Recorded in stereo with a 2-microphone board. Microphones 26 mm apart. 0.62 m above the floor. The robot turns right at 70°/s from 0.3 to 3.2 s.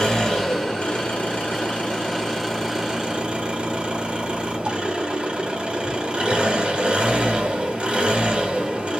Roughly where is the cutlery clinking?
No cutlery clinking in this recording.